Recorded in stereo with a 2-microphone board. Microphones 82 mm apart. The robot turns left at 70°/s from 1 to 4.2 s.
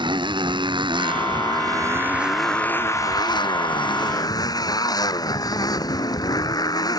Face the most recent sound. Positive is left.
turn(degrees=55)